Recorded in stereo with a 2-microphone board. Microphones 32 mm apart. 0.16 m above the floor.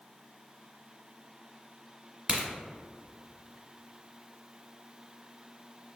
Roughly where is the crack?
Right.